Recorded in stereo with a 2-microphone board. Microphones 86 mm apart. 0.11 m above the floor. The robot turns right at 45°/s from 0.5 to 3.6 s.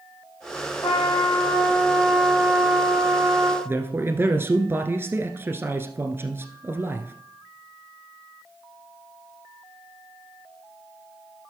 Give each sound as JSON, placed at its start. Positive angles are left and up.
{"t": 0.8, "sound": "a trumpet", "azimuth_deg": 115, "distance_m": 6.0}
{"t": 3.6, "sound": "a man speaking", "side_deg": -25, "distance_m": 1.3}